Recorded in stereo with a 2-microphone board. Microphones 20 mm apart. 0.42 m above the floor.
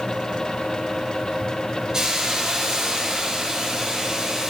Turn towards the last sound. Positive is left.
turn(degrees=-35)  # may be behind; listen again after turning